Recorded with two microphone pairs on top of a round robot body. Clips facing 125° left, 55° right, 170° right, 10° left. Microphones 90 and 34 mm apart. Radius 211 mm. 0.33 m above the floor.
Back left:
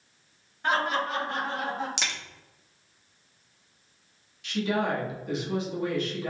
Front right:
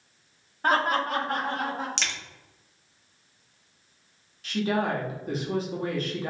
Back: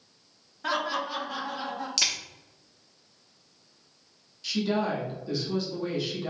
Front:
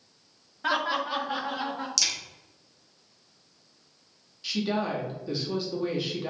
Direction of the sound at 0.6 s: 65° right.